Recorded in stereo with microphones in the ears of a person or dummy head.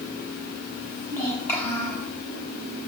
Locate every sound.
0.8 s a child speaking: 20° left (ahead or behind), 8.5 m; by 2.1 s 15° left (ahead or behind), 8 m